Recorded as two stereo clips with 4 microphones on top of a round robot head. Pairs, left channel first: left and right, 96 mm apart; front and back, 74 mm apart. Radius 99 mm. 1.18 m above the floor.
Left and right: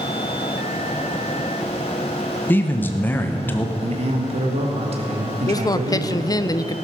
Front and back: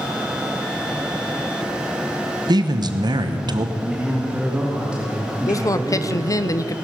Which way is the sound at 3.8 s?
100° right.